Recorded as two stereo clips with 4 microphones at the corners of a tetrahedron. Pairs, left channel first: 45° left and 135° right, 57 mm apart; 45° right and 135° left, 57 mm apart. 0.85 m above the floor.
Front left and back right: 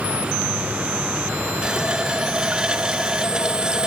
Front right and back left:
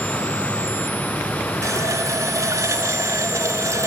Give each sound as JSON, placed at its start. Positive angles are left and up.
{"t": 1.6, "sound": "a running tap", "azimuth_deg": 150, "distance_m": 0.5}